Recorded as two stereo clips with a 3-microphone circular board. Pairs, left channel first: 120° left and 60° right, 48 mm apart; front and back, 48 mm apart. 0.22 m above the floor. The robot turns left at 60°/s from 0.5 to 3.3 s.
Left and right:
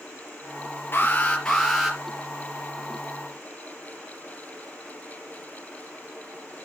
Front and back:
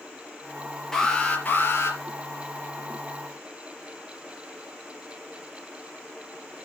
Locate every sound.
0.9 s an alarm: 80° left, 4.5 m; by 2.0 s 15° left, 4.5 m